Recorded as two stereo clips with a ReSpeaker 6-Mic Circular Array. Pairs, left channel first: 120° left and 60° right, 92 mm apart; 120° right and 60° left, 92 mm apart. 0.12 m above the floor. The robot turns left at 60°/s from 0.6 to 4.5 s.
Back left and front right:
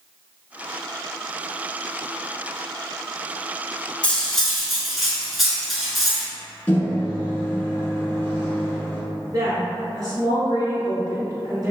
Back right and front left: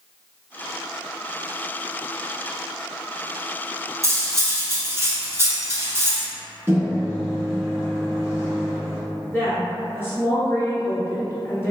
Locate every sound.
4.0 s cutlery clinking: 55° left, 0.7 m; by 6.3 s 30° left, 0.7 m
6.7 s a microwave: 90° left, 1.1 m
9.3 s a woman speaking: 70° right, 1.8 m